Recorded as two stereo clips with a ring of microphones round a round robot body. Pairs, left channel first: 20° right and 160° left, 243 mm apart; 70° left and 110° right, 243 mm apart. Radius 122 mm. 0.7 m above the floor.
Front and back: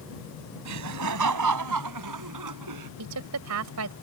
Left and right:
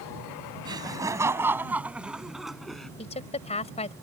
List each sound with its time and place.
0.7 s laughter: 175° left; by 2.9 s 155° left
3.0 s a woman speaking: 130° left